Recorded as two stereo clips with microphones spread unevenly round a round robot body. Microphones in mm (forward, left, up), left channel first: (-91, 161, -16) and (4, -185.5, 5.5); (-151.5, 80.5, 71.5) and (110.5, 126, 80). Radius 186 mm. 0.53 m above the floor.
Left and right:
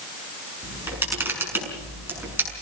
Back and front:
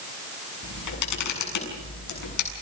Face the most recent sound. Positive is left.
turn(degrees=-160)